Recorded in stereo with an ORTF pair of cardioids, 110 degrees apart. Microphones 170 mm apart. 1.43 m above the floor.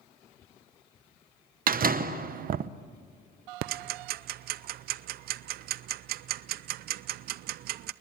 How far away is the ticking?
About 0.7 m.